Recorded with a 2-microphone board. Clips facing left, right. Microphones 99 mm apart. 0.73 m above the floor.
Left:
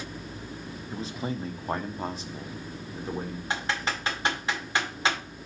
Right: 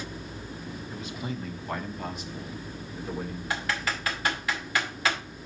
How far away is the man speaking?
About 0.7 m.